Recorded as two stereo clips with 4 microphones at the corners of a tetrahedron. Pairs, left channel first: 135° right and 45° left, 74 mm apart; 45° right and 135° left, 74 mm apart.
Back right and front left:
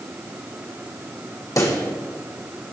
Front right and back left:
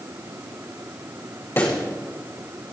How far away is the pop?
About 3 m.